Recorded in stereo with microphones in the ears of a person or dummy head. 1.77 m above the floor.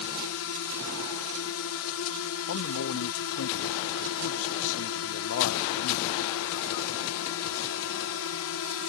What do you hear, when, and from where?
0.0 s a drone: 65° left (ahead or behind)
2.5 s a man speaking: 70° left (ahead or behind)